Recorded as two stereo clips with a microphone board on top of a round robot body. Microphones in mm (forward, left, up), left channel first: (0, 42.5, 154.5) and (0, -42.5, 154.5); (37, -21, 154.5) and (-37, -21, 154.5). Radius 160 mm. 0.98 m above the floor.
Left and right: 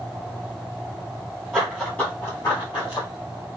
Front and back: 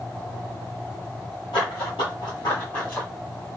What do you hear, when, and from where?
1.5 s running footsteps: 10° right, 1.3 m; by 3.1 s 80° left, 1.4 m